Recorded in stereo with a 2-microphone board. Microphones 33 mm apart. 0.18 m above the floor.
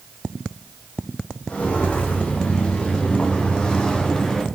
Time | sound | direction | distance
1.5 | footsteps | 35° left (ahead or behind) | 5 m